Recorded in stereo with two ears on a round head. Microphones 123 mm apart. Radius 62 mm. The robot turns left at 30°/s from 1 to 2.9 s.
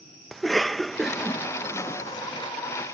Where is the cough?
Centre (ahead or behind); by 2.5 s 35° left (ahead or behind).